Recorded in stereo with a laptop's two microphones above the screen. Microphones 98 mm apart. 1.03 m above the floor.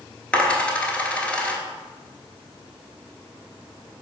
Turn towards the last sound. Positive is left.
turn(degrees=10)  # may be behind; listen again after turning